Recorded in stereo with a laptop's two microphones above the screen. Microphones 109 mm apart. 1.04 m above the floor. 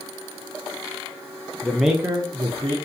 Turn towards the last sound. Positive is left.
turn(degrees=-50)  # may be behind; listen again after turning